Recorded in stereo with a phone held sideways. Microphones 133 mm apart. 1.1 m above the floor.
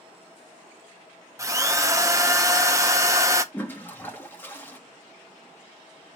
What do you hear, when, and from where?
1.4 s a drill: 25° right (ahead or behind), 0.7 m
3.5 s a toilet flushing: 15° left (ahead or behind), 1.4 m